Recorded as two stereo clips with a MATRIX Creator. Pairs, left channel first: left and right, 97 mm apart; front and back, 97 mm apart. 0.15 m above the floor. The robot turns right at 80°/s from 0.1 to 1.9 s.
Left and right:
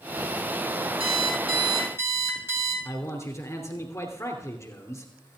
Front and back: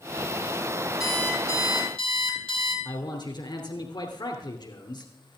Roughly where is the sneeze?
I don't hear a sneeze.